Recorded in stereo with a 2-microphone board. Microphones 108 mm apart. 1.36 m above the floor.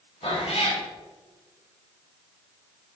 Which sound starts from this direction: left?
A cat meowing, at 0.2 s.